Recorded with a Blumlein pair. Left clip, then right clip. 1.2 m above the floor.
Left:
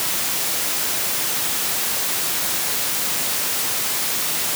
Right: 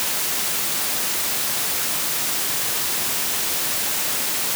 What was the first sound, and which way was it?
Only background noise.